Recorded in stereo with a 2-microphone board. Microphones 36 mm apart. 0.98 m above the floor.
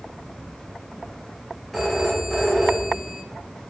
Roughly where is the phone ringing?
Centre.